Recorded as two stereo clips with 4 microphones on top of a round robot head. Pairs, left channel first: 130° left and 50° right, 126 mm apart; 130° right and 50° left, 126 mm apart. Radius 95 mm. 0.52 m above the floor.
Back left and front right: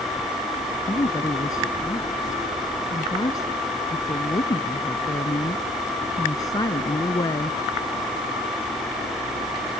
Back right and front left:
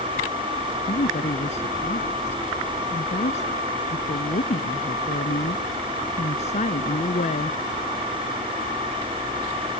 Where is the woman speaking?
165° right.